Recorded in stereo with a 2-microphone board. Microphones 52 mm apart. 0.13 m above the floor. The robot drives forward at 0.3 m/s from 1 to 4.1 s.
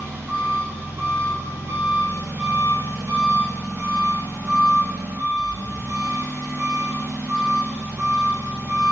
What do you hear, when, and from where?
0.0 s an engine running: 60° right (ahead or behind), 1.1 m; by 8.9 s 55° right (ahead or behind), 1.1 m